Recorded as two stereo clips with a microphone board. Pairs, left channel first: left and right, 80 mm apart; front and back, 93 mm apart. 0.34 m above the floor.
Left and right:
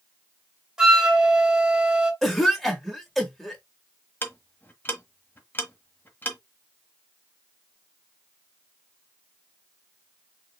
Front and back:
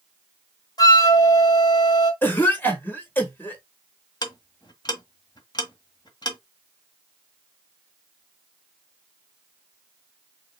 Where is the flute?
10° right, 1.7 m.